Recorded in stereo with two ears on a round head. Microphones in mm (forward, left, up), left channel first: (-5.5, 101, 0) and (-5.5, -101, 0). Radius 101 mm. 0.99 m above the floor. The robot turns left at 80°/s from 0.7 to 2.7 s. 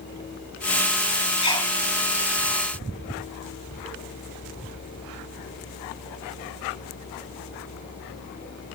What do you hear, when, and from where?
1.4 s a sneeze: 20° left (ahead or behind), 3.5 m; by 1.7 s 5° right (ahead or behind), 3.5 m